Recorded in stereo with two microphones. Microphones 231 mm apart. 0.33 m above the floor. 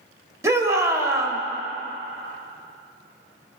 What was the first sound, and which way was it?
A shout, 15° right (ahead or behind).